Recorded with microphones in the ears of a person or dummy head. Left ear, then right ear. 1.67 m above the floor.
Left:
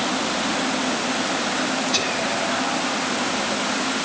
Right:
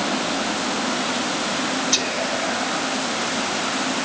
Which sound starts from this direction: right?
Whispering, at 1.9 s.